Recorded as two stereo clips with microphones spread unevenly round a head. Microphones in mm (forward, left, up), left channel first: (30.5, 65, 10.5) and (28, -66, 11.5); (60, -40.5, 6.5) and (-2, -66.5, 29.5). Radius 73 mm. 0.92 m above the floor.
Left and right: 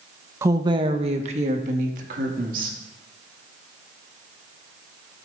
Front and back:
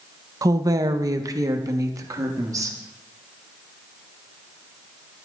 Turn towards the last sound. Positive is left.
turn(degrees=-115)